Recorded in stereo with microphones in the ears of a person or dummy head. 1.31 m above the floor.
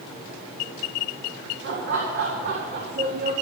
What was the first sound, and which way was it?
Laughter, 60° right (ahead or behind).